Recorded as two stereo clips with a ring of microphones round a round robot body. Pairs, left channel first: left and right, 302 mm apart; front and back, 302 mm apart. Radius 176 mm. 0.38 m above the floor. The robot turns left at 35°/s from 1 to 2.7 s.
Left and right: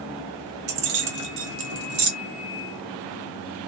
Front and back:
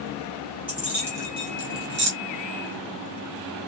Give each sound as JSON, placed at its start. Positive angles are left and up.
{"t": 0.7, "sound": "keys jangling", "azimuth_deg": -95, "distance_m": 1.0}